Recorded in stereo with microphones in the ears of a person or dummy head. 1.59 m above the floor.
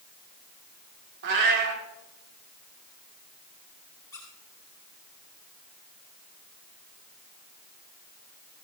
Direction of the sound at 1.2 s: 65° right (ahead or behind).